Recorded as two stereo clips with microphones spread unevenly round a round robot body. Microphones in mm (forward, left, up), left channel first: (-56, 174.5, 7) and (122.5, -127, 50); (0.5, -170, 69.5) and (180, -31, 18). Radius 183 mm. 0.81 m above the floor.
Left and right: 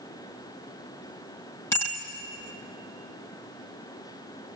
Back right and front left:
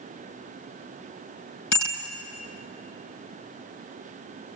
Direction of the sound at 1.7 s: 155° right.